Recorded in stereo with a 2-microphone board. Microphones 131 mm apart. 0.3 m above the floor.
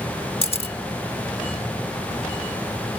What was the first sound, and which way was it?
A camera shutter, 45° left (ahead or behind).